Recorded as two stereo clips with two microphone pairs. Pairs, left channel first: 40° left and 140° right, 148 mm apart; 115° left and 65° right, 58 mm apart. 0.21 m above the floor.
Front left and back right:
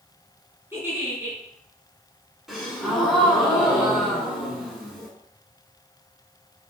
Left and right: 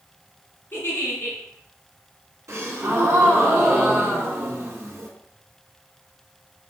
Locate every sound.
0.7 s a giggle: 150° left, 1.8 m
2.5 s a gasp: 55° right, 1.2 m